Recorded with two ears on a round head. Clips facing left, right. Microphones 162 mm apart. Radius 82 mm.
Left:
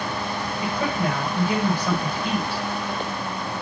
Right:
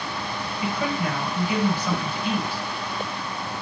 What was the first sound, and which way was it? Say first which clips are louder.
A woman speaking: left 1 dB; 35° left (ahead or behind).